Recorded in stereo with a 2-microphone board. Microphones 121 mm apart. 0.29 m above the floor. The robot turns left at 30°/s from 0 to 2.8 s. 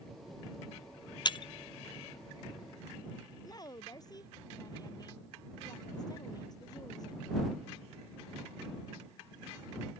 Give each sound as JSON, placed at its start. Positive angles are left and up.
{"t": 1.2, "sound": "breaking glass", "side_deg": 40}
{"t": 3.4, "sound": "a woman speaking", "side_deg": 35}